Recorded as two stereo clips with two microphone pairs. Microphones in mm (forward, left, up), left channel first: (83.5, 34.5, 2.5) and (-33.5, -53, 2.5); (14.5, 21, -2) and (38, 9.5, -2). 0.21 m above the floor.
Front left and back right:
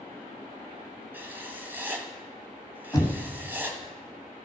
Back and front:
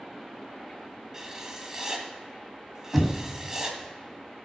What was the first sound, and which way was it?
Writing, 75° right.